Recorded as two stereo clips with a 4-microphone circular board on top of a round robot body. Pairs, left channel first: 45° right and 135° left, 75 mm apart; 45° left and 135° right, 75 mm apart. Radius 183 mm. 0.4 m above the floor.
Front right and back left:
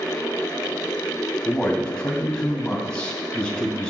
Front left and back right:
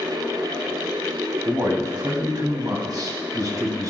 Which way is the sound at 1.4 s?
120° right.